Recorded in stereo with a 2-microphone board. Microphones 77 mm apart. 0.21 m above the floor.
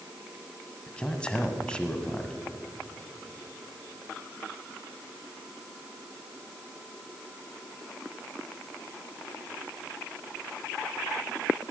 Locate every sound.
0.9 s a man speaking: 15° left (ahead or behind), 1.3 m